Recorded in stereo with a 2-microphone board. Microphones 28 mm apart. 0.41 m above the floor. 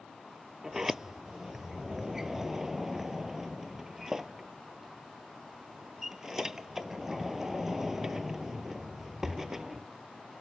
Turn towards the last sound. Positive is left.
turn(degrees=-20)  # may be behind; listen again after turning